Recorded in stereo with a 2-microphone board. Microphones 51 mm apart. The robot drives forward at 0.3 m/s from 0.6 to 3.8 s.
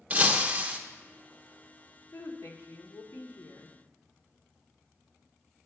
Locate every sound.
0.1 s breaking glass: 30° right (ahead or behind), 1.0 m
2.1 s a woman speaking: 70° left (ahead or behind), 1.6 m; by 3.8 s 65° left (ahead or behind), 1.6 m